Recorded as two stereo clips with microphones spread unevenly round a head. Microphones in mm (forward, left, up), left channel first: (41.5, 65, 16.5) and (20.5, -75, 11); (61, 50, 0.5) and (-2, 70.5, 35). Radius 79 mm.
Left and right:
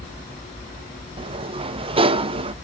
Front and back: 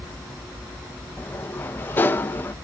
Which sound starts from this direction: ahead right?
A sliding door, at 1.2 s.